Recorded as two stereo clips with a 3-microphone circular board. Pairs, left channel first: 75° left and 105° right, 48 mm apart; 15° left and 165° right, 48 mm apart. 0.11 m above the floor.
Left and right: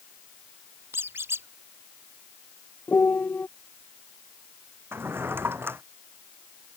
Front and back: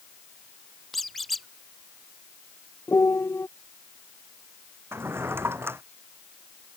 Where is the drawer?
140° right.